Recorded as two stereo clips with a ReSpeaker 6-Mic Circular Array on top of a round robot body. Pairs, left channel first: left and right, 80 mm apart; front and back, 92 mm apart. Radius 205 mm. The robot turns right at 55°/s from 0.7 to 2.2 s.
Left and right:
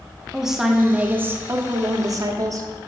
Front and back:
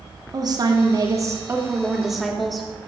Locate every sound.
0.3 s a woman speaking: 170° right, 1.6 m; by 2.7 s 90° right, 1.6 m